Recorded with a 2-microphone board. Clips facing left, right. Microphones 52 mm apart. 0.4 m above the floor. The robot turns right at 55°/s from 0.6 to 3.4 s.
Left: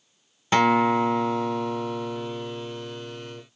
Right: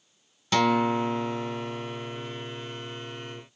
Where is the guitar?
30° left, 0.5 m; by 3.4 s 175° right, 0.5 m.